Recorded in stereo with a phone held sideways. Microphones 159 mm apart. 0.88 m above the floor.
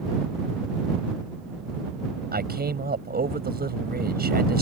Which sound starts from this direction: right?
A man speaking, at 2.3 s.